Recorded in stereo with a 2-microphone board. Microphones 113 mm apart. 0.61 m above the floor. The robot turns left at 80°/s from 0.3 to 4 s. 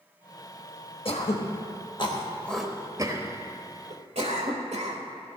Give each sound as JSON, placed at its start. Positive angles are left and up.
{"t": 1.1, "sound": "throat clearing", "side_deg": 55, "distance_m": 1.2}